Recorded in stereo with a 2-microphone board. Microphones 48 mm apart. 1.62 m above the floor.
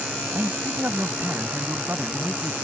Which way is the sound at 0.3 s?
45° right (ahead or behind).